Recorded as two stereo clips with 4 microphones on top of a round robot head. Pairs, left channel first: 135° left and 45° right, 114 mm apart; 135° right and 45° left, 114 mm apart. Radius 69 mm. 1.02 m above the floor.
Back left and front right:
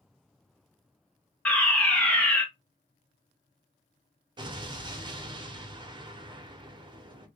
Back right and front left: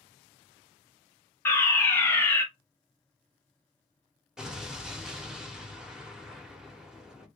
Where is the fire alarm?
165° right, 1.1 m.